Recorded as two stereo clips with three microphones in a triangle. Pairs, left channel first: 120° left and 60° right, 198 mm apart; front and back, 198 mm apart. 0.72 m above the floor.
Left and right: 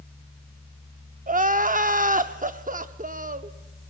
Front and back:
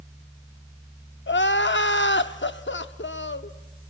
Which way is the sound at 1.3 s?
15° right.